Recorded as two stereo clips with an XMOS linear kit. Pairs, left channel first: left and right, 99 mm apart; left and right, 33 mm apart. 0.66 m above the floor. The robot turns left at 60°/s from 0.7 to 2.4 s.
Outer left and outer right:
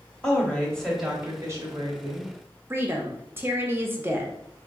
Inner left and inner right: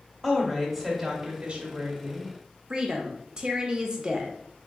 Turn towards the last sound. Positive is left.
turn(degrees=-25)  # may be behind; listen again after turning